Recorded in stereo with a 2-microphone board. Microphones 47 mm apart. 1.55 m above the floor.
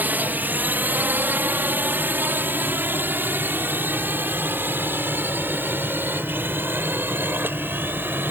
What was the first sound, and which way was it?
A drone, 40° right (ahead or behind).